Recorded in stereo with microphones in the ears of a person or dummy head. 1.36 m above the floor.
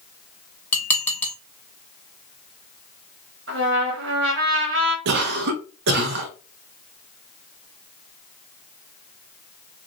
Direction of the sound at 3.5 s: 75° right (ahead or behind).